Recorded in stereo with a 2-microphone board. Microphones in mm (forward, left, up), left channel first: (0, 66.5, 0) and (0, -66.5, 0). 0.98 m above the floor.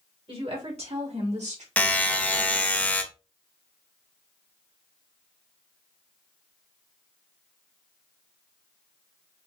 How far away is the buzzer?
About 0.9 m.